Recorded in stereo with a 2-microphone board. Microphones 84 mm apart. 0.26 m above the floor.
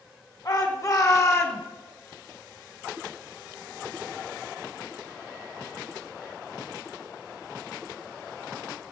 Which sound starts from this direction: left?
A shout, at 0.5 s.